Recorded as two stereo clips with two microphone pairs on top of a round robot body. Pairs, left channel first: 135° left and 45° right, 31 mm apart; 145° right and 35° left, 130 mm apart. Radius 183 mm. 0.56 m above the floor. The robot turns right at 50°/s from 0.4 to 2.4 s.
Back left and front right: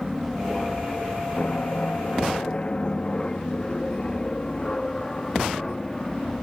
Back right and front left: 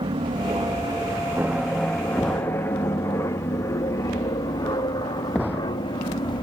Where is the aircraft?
40° left; by 6.4 s 150° right.